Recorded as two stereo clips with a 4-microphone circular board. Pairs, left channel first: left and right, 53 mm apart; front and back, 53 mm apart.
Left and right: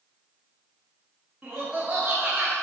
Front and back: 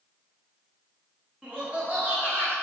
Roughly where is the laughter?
Behind right.